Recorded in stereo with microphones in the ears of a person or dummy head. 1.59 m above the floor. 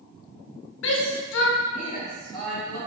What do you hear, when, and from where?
0.8 s a shout: 65° left (ahead or behind), 0.8 m; by 2.8 s 10° left (ahead or behind), 1.5 m